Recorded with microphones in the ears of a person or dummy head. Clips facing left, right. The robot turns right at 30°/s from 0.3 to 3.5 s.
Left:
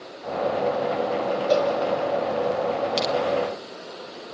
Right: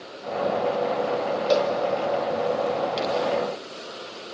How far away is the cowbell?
About 4.5 m.